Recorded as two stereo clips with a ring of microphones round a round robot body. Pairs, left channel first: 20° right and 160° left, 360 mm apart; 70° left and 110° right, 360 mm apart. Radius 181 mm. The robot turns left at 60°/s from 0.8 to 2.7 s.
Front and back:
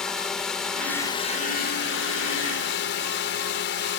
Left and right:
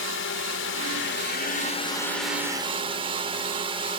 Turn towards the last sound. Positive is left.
turn(degrees=-50)